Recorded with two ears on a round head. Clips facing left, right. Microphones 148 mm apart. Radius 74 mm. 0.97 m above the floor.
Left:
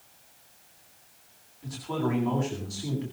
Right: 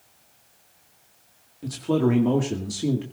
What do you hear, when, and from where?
1.6 s a man speaking: 65° right (ahead or behind), 2 m